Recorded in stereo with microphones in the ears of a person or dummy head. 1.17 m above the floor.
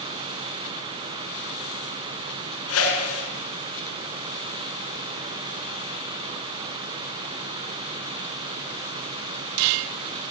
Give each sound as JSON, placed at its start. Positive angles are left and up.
{"t": 2.7, "sound": "a whoosh", "side_deg": 85, "distance_m": 8.0}